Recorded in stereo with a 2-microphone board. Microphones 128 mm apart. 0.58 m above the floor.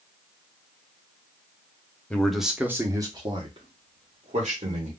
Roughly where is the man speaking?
Centre.